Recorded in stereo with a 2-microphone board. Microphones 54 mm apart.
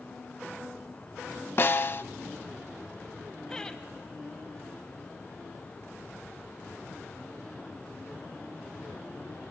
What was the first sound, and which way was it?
A snare drum, 45° left (ahead or behind).